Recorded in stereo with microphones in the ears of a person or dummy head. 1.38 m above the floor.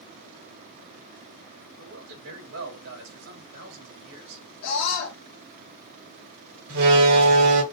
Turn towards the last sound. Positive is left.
turn(degrees=-80)